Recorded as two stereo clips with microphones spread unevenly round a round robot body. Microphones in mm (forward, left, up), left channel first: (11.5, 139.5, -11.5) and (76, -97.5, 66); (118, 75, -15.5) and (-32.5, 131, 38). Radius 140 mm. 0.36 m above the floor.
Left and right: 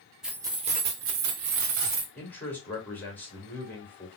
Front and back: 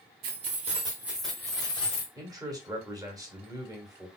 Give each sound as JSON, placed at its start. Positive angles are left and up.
{"t": 0.2, "sound": "keys jangling", "azimuth_deg": 180, "distance_m": 0.7}
{"t": 2.1, "sound": "a man speaking", "azimuth_deg": 75, "distance_m": 1.5}